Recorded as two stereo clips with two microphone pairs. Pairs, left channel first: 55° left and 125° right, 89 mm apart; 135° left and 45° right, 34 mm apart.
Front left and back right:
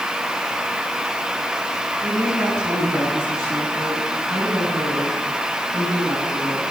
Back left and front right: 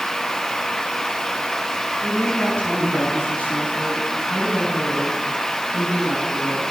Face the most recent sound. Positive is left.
turn(degrees=170)